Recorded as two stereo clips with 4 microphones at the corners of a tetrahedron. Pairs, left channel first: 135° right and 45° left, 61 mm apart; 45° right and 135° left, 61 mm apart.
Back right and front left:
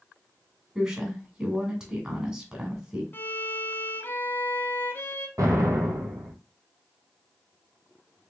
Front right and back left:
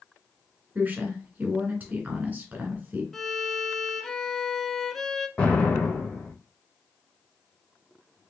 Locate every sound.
0.8 s a woman speaking: 110° left, 1.7 m
3.1 s a violin: 130° right, 0.6 m
5.4 s an explosion: 25° left, 1.4 m